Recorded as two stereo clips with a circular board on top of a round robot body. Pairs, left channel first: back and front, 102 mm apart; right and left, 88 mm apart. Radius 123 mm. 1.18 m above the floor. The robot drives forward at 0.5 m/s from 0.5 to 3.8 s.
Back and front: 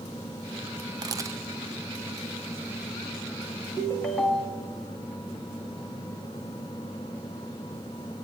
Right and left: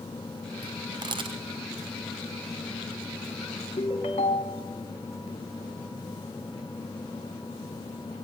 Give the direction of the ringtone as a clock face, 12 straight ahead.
3 o'clock.